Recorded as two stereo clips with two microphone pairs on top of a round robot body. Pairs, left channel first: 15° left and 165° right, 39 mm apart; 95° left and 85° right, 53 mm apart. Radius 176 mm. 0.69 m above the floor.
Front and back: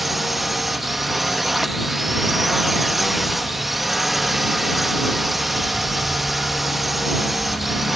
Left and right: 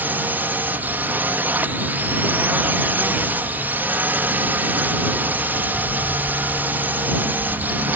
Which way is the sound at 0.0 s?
70° right.